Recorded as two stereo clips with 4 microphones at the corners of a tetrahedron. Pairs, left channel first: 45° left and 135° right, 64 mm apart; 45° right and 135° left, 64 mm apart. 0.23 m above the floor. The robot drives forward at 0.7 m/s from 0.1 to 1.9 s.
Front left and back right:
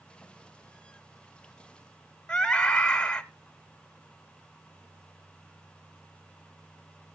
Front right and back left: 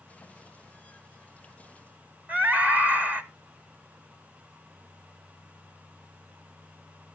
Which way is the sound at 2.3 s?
110° left.